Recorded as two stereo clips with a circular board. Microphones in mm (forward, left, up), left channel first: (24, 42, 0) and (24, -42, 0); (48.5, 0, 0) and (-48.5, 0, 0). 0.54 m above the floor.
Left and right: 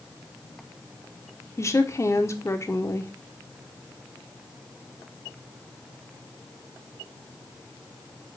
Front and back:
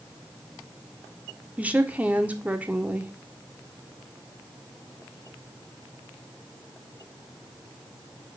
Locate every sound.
1.6 s a woman speaking: 115° left, 1.3 m